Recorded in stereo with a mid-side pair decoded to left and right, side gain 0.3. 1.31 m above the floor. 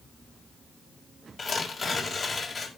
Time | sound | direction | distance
1.4 | tearing paper | 45° left | 5 m